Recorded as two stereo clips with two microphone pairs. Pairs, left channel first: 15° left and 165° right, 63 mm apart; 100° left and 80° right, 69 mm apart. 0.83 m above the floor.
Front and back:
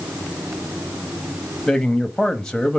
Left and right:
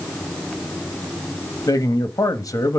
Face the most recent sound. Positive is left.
turn(degrees=95)